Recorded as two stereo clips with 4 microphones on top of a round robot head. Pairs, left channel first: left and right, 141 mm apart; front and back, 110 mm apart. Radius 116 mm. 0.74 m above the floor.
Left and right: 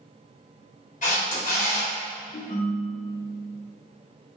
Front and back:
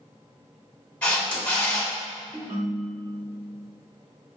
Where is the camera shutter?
75° left, 1.7 m.